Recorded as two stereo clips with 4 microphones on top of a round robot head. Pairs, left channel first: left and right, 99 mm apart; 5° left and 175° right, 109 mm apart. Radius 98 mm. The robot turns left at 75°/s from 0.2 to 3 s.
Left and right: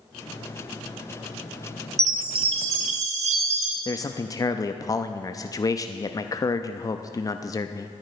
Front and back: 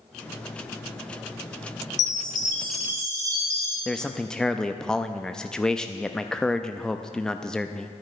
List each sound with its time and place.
2.0 s a chime: 30° right, 1.0 m; by 3.8 s 105° right, 1.0 m
3.9 s a man speaking: 85° left, 0.6 m